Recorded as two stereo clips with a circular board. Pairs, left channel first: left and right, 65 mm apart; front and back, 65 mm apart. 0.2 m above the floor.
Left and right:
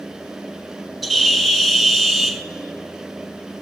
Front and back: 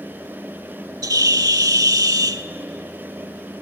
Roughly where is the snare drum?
No snare drum in this recording.